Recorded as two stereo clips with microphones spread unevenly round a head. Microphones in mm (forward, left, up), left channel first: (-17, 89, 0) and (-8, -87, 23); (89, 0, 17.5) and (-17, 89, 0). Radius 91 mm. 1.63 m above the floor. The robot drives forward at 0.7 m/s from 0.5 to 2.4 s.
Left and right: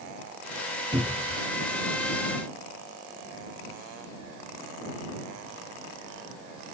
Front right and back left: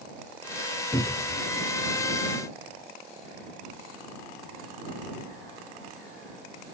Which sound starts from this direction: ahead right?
A cupboard door, at 0.9 s.